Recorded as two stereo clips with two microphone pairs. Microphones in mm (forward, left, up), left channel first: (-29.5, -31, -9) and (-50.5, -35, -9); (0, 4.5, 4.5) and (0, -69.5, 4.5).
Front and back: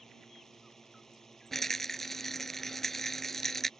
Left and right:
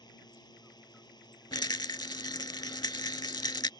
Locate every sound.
0.0 s a drone: 80° left
1.5 s a rattle: 90° left